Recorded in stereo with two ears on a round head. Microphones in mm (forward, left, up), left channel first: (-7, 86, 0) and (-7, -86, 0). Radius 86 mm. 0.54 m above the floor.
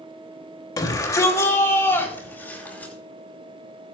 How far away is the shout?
About 3 m.